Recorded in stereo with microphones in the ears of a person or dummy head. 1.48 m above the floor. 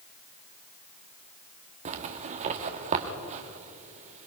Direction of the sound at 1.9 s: 40° right (ahead or behind).